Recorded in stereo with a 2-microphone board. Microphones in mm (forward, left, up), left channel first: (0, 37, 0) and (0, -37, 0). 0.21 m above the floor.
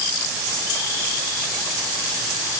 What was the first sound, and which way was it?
Only background noise.